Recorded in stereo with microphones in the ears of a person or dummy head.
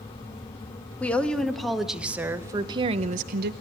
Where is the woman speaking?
10° left (ahead or behind), 1.6 m; by 3.5 s 60° right (ahead or behind), 0.8 m.